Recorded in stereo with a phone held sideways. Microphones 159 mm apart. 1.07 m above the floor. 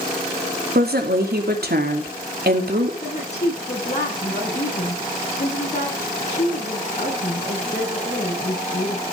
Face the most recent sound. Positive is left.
turn(degrees=45)  # may be behind; listen again after turning